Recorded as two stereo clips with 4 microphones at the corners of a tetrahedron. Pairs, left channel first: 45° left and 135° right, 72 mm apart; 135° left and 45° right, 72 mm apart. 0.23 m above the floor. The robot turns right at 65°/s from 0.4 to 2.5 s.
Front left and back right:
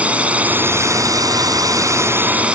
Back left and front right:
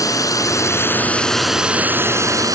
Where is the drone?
155° left; by 2.5 s 65° right.